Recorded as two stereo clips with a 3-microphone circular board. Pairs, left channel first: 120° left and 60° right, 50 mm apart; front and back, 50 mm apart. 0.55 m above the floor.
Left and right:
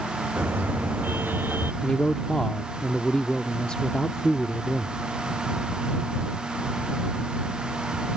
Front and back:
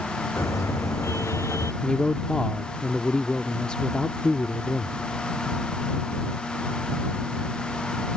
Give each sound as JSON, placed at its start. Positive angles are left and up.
{"t": 0.4, "sound": "a car horn", "azimuth_deg": -15}
{"t": 1.8, "sound": "a man speaking", "azimuth_deg": 60}